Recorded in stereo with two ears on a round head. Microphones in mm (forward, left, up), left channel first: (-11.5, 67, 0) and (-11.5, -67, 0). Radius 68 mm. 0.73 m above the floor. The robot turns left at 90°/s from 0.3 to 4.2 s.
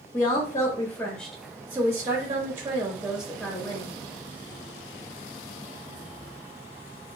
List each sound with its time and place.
0.1 s a woman speaking: 20° left (ahead or behind), 1.1 m; by 3.9 s 15° left (ahead or behind), 1.1 m